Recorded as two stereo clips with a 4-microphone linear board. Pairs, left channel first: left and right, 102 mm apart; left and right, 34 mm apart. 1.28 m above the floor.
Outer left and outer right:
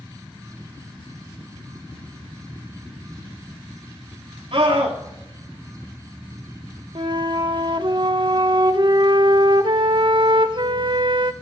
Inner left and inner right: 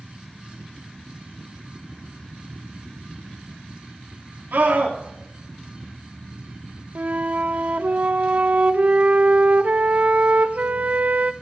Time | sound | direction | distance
4.5 | a scream | 60° right (ahead or behind) | 3.5 m
7.0 | a flute | 50° right (ahead or behind) | 0.8 m